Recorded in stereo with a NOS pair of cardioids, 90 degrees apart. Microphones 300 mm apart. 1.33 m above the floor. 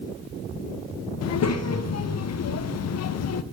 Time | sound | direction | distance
1.2 | a child speaking | 55° left | 0.7 m